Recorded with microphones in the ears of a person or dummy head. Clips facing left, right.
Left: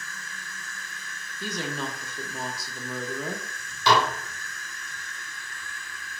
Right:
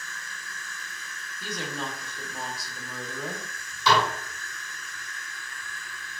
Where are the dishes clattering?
55° left (ahead or behind), 1.7 m.